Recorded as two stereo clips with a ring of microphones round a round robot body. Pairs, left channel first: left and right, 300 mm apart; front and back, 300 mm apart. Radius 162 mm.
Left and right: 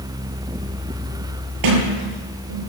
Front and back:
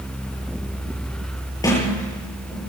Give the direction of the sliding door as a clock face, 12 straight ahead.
3 o'clock.